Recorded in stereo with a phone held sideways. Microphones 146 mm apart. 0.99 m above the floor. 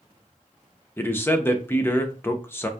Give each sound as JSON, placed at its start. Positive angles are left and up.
{"t": 1.0, "sound": "a man speaking", "side_deg": 15, "distance_m": 0.7}